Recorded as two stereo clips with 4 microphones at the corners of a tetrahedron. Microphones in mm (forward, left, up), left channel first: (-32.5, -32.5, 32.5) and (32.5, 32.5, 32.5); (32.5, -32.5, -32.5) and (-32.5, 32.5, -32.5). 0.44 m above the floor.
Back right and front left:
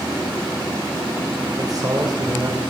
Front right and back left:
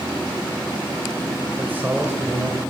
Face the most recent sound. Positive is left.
turn(degrees=75)